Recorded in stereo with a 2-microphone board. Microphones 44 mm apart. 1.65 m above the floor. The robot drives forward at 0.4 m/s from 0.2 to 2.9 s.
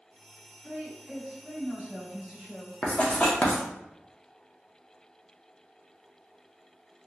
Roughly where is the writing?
Left.